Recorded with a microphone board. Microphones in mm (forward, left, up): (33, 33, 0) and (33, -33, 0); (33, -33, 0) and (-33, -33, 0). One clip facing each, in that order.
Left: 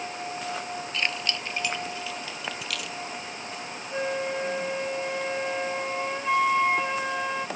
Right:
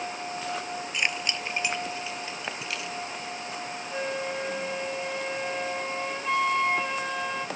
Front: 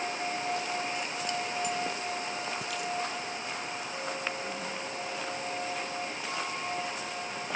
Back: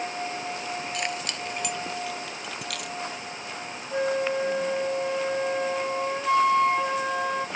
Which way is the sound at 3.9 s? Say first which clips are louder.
Left 3 dB, back 14 dB; 170° left.